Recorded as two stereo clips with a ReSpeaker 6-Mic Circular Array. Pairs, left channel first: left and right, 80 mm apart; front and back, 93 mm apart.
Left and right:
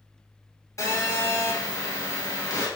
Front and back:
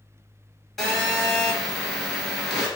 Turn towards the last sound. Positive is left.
turn(degrees=85)